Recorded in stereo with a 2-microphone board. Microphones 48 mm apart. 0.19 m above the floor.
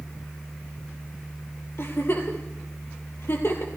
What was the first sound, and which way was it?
A giggle, 55° left (ahead or behind).